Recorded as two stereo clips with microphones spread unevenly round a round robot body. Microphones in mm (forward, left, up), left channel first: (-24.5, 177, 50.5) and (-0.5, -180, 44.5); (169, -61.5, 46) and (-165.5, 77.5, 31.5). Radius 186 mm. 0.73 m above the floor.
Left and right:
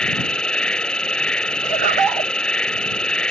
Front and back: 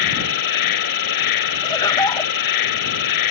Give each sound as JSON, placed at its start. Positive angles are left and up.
{"t": 0.0, "sound": "an insect", "azimuth_deg": 5}
{"t": 1.6, "sound": "laughter", "azimuth_deg": -100}